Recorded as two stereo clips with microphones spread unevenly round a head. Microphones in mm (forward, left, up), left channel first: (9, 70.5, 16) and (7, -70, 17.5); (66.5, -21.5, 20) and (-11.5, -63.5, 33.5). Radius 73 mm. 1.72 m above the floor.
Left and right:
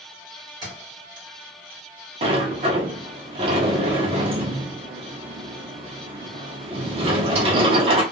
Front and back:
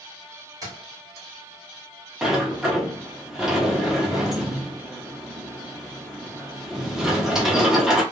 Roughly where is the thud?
Behind right.